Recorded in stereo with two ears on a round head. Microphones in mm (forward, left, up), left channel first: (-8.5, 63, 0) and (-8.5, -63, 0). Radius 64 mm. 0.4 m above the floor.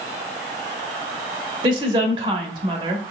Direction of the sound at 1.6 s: 35° right (ahead or behind).